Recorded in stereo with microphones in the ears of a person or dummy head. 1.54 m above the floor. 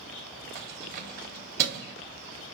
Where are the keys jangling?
50° right (ahead or behind), 1.0 m.